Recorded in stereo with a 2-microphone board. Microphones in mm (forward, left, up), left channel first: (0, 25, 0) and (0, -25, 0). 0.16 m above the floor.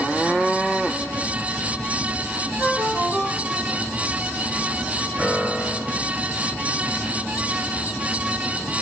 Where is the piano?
35° right (ahead or behind), 9.5 m.